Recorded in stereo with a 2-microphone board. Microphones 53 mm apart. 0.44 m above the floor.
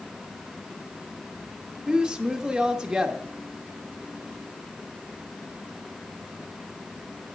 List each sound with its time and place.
1.9 s a woman speaking: 15° right (ahead or behind), 0.7 m